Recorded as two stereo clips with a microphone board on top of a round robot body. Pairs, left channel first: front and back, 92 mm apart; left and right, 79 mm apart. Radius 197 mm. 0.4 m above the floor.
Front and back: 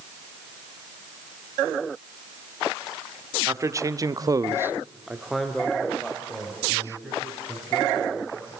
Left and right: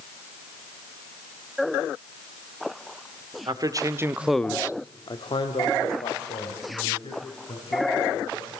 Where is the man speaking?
125° right, 1.7 m; by 8.5 s 75° left, 6.5 m.